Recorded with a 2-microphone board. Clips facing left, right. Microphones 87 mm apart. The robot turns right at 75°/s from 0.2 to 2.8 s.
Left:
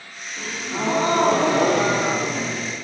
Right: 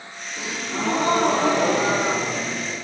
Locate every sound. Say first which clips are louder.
0.4 s a gasp: even; 20° right, 3 m; by 2.7 s 160° left, 3 m